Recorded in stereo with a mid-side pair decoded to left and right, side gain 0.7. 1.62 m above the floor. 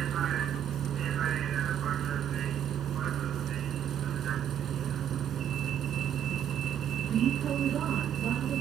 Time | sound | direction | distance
0.0 | a vehicle | 40° right | ?